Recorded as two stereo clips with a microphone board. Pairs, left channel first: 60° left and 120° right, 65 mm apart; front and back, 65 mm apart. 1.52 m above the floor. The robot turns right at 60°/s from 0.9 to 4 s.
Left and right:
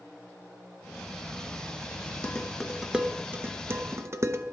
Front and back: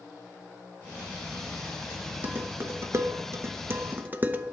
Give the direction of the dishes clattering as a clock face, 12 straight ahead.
8 o'clock.